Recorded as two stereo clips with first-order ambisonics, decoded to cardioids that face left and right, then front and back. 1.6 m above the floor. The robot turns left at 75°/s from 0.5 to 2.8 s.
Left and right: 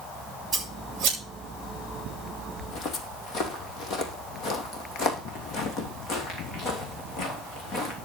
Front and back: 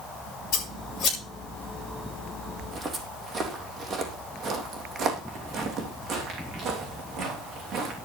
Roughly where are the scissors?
Ahead right.